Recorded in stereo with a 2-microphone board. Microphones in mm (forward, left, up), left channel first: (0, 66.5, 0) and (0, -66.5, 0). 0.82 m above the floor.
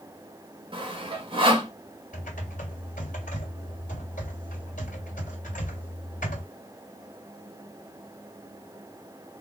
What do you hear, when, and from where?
0.7 s sawing: 40° right (ahead or behind), 1.2 m
2.1 s typing on a keyboard: 90° left, 1.6 m